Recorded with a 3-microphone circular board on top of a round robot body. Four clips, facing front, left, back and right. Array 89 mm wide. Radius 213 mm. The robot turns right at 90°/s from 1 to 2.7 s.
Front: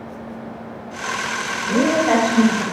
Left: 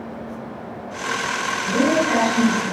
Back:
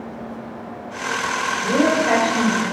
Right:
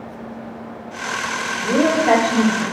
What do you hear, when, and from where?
1.6 s a woman speaking: 135° right, 5.5 m; by 2.6 s 45° right, 5.5 m